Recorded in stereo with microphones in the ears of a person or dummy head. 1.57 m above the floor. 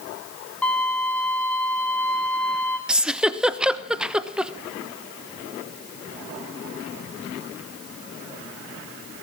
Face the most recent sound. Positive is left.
turn(degrees=-5)  # may be behind; listen again after turning